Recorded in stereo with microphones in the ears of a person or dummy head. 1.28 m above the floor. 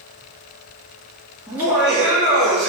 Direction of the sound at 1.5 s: 5° right (ahead or behind).